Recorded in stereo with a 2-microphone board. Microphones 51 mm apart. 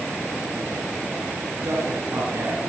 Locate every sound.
1.6 s a man speaking: 80° right, 5.5 m